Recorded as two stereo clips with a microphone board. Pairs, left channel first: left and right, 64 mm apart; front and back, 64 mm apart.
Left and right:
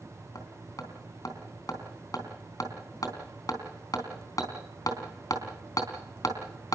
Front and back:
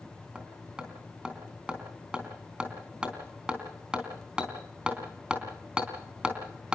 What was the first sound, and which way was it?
Hammering, 105° left.